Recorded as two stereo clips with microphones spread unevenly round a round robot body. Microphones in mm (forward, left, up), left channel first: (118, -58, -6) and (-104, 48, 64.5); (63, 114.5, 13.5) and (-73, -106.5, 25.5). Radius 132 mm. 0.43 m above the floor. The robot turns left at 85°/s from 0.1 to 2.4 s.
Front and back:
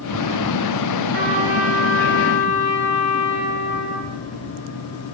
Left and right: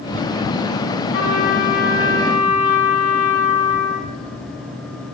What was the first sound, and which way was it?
A trumpet, 105° left.